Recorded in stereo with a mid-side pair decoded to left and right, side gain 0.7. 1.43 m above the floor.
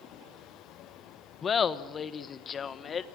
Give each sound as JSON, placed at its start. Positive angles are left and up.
{"t": 1.4, "sound": "laughter", "azimuth_deg": 30, "distance_m": 1.4}